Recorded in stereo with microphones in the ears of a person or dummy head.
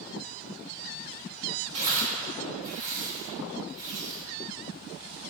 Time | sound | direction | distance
1.7 | tearing paper | 35° right (ahead or behind) | 2 m